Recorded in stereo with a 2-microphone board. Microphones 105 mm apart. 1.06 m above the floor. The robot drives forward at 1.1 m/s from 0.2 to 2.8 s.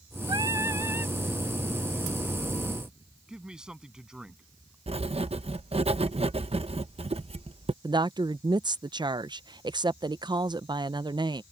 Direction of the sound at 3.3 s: 5° right (ahead or behind).